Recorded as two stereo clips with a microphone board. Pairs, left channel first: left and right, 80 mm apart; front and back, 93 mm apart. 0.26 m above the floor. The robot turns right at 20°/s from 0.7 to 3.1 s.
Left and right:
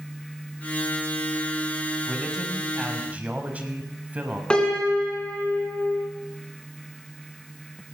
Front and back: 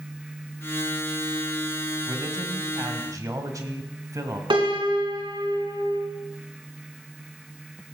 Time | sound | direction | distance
2.1 | a man speaking | 175° right | 1.4 m
4.5 | a piano | 165° left | 3 m